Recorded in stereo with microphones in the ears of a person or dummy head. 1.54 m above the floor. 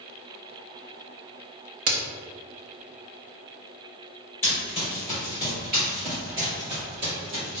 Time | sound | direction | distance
1.9 | a crack | 50° right (ahead or behind) | 0.6 m
4.4 | running footsteps | 10° right (ahead or behind) | 1.6 m